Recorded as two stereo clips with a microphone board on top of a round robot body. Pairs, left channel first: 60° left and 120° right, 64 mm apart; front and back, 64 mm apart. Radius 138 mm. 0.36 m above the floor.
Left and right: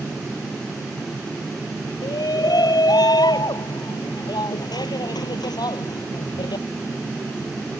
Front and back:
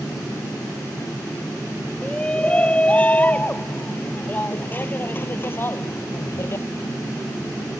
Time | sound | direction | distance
2.0 | a shout | 75° left | ?